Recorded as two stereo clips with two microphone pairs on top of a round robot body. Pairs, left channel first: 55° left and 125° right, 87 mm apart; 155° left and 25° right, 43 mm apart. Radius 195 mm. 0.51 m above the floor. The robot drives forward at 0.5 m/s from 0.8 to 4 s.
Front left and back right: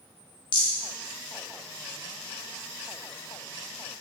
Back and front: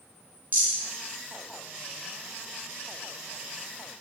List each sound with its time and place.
0.5 s a rattle: 20° left, 0.6 m